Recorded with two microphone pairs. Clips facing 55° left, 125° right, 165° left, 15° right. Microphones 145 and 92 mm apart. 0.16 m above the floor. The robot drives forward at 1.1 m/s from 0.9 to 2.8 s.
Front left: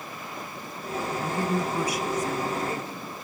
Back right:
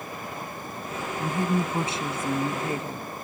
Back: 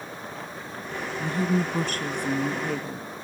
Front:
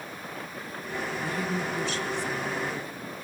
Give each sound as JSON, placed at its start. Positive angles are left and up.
{"t": 1.2, "sound": "a woman speaking", "azimuth_deg": 180, "distance_m": 1.3}